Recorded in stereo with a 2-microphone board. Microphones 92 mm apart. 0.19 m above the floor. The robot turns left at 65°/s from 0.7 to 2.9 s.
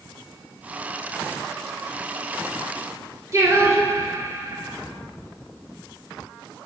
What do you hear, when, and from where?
3.3 s singing: 35° right (ahead or behind), 1.0 m